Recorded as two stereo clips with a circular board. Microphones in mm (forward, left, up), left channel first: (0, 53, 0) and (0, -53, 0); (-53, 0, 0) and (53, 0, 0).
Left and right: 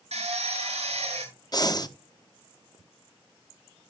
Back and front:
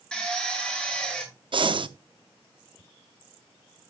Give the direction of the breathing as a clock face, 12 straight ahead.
11 o'clock.